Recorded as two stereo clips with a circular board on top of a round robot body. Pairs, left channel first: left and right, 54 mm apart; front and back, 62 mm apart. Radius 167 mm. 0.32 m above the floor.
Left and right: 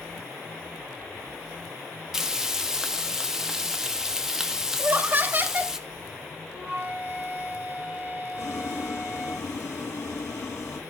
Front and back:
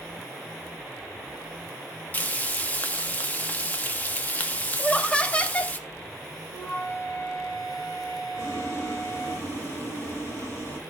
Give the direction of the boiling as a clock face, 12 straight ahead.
10 o'clock.